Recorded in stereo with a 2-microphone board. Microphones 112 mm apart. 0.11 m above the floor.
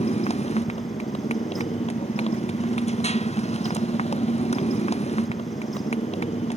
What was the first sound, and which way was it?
A motorcycle, 70° left (ahead or behind).